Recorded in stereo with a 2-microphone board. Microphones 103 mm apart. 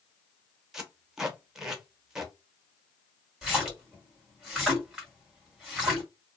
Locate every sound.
0.7 s tape being pulled: 5° right (ahead or behind), 0.8 m
3.4 s a splash: 5° right (ahead or behind), 1.6 m